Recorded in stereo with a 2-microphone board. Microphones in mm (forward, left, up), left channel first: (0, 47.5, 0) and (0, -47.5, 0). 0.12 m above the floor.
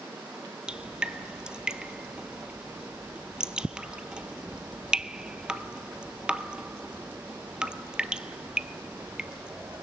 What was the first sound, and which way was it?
Dripping, 10° right (ahead or behind).